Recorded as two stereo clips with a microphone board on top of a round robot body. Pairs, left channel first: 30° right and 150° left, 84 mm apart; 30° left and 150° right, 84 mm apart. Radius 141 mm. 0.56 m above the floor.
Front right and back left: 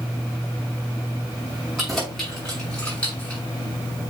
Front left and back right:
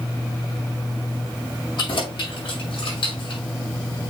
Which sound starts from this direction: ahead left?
Keys jangling, at 1.8 s.